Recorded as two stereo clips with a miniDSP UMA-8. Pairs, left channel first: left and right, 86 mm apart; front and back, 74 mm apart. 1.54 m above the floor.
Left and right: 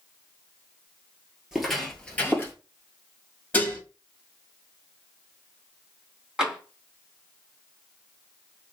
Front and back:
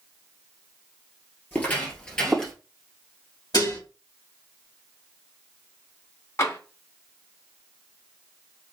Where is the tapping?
15° right, 1.7 m.